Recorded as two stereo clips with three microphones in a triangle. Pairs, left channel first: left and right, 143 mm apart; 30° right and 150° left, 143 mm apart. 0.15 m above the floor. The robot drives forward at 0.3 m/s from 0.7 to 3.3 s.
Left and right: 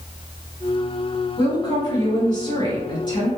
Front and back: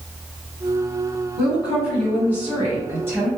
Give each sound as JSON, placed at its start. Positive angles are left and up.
{"t": 1.4, "sound": "a woman speaking", "azimuth_deg": 70, "distance_m": 1.9}